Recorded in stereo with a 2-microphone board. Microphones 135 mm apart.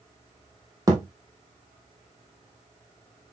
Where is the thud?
25° right (ahead or behind), 2.5 m.